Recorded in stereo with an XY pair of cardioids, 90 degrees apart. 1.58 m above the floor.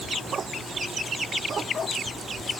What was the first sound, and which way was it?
Only background noise.